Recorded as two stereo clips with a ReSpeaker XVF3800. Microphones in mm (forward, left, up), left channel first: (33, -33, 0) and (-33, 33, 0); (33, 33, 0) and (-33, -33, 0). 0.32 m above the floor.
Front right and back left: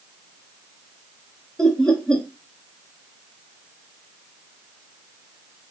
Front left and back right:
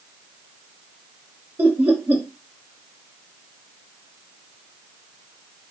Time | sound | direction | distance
1.6 | laughter | 115° right | 1.0 m